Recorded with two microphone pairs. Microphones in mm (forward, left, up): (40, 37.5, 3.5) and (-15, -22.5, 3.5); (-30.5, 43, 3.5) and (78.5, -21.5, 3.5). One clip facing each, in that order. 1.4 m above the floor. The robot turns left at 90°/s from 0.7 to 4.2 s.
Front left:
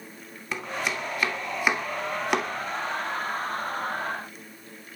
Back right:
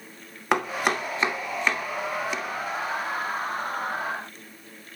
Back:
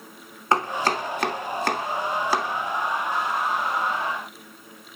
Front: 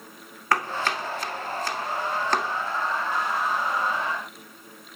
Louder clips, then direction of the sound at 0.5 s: Back right 6 dB, back 3 dB; 145° right.